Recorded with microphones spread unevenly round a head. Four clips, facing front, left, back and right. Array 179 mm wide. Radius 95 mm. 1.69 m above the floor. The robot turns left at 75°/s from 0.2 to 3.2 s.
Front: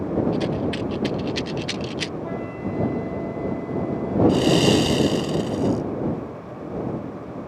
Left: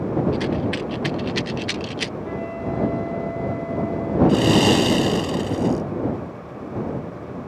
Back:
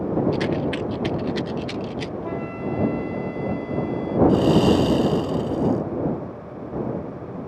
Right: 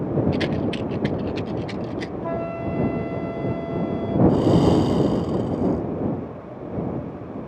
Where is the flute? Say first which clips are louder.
Right 3 dB, back 1 dB; 80° right; by 4.2 s 150° right.